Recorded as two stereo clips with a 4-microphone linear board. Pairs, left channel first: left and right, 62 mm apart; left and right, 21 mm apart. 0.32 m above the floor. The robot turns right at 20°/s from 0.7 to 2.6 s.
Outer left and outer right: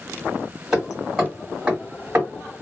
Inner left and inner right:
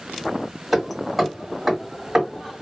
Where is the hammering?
5° right (ahead or behind), 2.0 m; by 2.6 s 35° right (ahead or behind), 2.0 m.